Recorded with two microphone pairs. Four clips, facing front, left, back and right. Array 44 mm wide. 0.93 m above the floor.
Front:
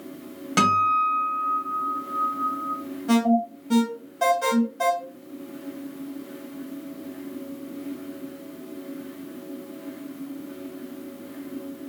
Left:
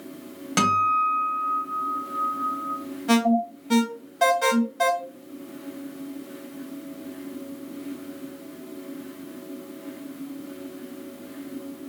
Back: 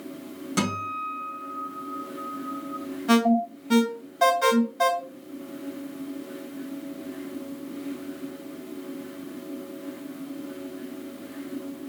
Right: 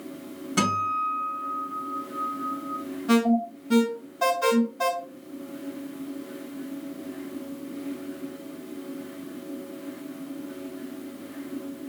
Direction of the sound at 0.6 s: 40° left.